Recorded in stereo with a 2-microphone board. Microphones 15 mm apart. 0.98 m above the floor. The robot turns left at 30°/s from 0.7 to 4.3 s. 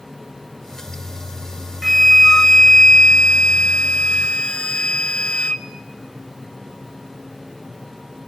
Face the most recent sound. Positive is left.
turn(degrees=85)